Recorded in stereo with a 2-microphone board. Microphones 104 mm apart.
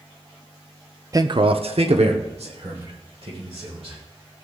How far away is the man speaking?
About 0.5 m.